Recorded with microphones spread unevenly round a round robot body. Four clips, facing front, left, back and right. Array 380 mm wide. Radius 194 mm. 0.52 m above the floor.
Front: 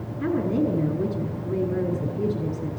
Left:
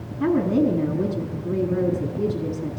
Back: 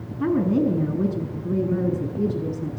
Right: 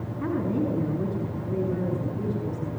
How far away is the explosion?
I don't hear an explosion.